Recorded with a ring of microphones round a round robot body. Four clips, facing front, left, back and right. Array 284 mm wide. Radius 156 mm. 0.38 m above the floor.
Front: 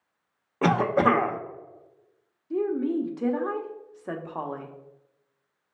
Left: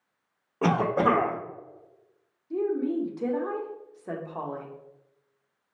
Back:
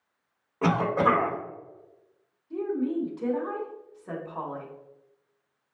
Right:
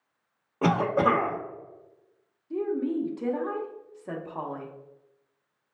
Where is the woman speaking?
10° left, 1.0 m.